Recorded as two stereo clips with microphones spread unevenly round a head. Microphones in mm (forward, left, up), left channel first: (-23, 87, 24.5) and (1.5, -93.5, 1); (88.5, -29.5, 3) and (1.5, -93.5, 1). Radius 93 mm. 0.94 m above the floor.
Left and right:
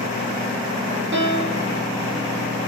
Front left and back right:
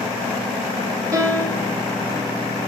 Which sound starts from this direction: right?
A piano, at 1.1 s.